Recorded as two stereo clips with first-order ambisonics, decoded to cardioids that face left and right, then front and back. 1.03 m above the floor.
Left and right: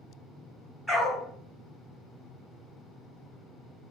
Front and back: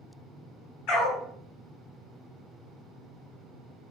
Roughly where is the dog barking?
Ahead.